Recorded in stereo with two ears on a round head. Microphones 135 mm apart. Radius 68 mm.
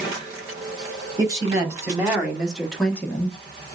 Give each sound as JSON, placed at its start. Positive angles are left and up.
{"t": 1.2, "sound": "a woman speaking", "side_deg": -25, "distance_m": 2.0}